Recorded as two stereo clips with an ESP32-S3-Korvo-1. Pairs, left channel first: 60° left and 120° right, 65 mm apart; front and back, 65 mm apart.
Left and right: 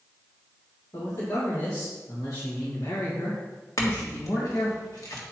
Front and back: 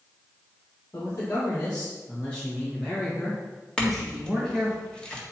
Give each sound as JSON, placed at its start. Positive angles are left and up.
{"t": 0.9, "sound": "a man speaking", "azimuth_deg": 45, "distance_m": 2.0}
{"t": 3.8, "sound": "a clink", "azimuth_deg": 75, "distance_m": 1.6}